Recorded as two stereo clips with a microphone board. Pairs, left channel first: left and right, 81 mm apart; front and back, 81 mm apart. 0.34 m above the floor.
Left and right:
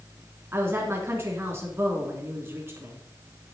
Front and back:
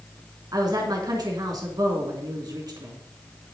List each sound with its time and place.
0.5 s a woman speaking: 145° right, 3 m